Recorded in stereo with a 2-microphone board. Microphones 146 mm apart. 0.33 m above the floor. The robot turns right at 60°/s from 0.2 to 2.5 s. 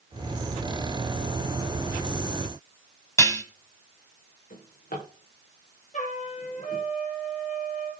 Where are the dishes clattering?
20° left (ahead or behind), 1.6 m.